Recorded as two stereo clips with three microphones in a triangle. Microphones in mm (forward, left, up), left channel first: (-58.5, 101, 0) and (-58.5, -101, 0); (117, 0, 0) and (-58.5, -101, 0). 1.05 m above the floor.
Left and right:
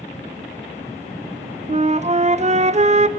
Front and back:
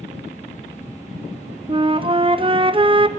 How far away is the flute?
About 0.5 m.